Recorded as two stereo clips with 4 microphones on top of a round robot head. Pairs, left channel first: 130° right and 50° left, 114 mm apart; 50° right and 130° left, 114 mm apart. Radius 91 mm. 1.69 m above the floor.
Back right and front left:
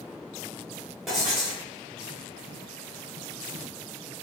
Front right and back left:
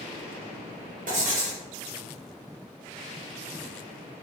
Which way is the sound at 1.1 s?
140° left.